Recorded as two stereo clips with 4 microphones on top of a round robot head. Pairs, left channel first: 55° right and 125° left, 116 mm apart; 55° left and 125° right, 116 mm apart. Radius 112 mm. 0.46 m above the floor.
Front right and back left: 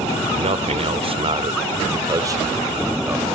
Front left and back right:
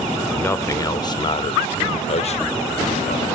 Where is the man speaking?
125° left, 2 m; by 3.3 s 55° left, 3 m.